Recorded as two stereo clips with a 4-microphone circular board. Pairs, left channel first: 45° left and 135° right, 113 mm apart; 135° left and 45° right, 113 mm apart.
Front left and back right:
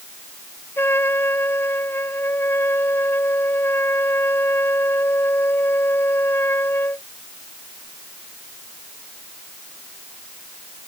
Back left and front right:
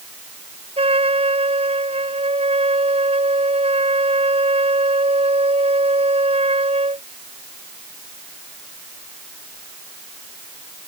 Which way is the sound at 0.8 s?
25° right.